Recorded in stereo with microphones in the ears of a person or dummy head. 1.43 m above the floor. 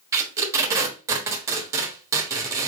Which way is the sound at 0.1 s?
15° right (ahead or behind).